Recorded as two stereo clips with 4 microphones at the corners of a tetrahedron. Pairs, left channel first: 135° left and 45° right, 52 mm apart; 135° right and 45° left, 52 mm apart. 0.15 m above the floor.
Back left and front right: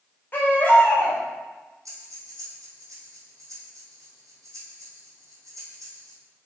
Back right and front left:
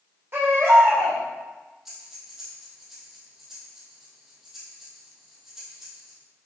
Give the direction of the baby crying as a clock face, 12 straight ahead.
9 o'clock.